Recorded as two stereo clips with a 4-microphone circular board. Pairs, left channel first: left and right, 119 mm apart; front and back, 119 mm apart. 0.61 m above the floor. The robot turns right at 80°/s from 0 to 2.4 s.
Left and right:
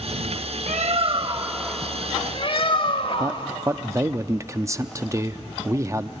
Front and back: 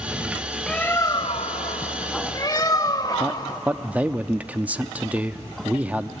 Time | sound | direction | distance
0.7 | a bird | 85° right | 0.7 m
3.2 | a man speaking | 115° right | 0.5 m